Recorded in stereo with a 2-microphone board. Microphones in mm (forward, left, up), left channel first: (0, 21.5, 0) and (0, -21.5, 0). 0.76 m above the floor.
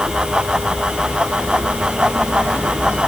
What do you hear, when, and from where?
Only background noise.